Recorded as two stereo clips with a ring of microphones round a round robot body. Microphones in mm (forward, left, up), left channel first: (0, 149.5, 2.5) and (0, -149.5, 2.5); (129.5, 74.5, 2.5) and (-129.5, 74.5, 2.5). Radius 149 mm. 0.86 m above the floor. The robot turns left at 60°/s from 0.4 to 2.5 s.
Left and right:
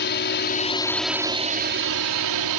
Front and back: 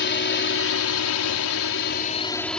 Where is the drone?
40° left; by 2.6 s 85° right.